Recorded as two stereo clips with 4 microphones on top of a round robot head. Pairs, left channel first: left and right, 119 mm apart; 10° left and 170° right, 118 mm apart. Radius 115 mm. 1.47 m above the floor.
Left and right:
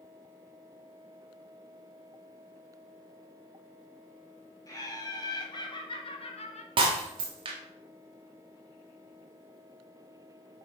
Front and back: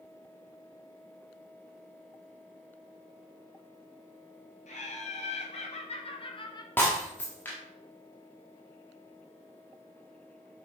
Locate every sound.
4.7 s laughter: 30° left, 3.5 m; by 6.7 s 65° left, 1.6 m
6.8 s breaking glass: 70° right, 1.1 m